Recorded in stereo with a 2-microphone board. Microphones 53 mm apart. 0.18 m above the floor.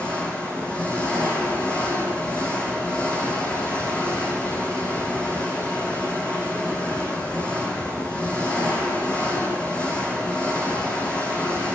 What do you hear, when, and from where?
0.0 s an engine running: 20° left (ahead or behind), 9.5 m